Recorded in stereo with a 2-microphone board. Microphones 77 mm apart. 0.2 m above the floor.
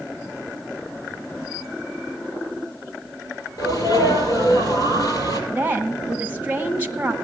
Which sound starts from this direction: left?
A sneeze, at 3.6 s.